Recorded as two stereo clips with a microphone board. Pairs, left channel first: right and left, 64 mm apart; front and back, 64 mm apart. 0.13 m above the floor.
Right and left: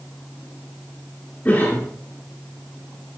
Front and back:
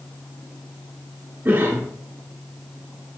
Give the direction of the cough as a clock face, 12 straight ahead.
5 o'clock.